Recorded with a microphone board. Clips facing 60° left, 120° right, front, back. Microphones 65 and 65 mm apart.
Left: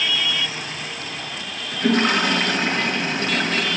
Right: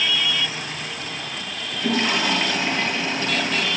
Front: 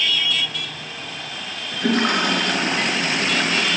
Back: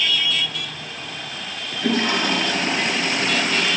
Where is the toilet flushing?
25° left, 5.5 m.